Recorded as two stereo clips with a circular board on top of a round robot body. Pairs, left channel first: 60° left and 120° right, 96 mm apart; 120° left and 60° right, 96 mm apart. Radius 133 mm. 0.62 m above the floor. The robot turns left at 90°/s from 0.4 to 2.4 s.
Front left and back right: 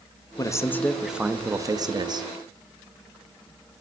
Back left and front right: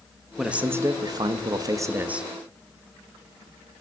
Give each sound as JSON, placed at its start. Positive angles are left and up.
{"t": 0.4, "sound": "a man speaking", "azimuth_deg": 25, "distance_m": 1.0}